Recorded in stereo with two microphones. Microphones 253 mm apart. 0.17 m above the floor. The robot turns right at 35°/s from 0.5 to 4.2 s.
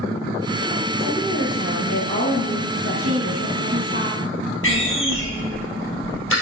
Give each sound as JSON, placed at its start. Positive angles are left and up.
{"t": 1.0, "sound": "a woman speaking", "azimuth_deg": 0, "distance_m": 4.0}
{"t": 3.0, "sound": "a woman speaking", "azimuth_deg": -125, "distance_m": 1.5}
{"t": 4.6, "sound": "a door slam", "side_deg": 55, "distance_m": 3.0}